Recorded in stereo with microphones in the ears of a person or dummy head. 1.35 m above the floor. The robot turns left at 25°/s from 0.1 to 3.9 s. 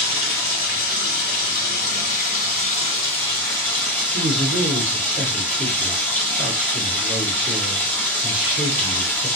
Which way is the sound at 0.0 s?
105° left.